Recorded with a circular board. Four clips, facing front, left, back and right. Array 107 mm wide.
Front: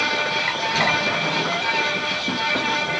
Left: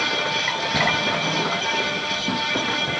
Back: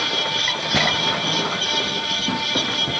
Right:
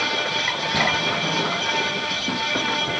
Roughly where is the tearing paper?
Behind.